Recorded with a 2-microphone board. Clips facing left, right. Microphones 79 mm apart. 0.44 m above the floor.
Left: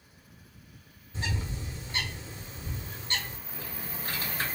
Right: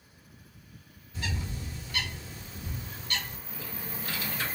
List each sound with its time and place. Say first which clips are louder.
1.1 s a bird: left 1 dB; 30° left (ahead or behind), 1.3 m
3.5 s typing on a keyboard: even; 40° left (ahead or behind), 2.0 m